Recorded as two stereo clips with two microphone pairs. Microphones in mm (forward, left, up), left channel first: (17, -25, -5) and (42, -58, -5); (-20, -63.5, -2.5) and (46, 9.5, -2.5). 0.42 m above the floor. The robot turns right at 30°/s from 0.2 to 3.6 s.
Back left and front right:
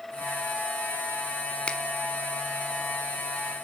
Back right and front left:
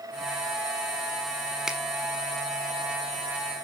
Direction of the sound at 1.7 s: 125° left.